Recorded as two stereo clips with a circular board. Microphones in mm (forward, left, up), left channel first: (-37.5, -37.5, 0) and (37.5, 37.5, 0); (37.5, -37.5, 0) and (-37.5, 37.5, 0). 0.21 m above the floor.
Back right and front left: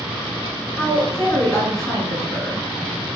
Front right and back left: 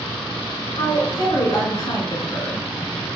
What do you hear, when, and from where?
0.8 s a woman speaking: 45° right, 1.8 m